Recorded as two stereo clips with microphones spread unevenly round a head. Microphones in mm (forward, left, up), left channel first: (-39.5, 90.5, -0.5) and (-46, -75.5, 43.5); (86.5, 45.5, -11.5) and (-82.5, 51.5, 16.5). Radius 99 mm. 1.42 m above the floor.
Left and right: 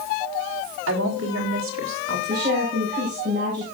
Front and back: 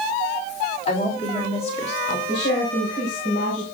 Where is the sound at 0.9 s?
65° right, 3.5 m; by 2.2 s 60° right, 2.5 m.